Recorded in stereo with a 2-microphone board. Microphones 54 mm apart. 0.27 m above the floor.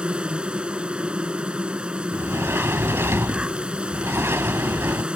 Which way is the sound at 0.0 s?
20° right (ahead or behind).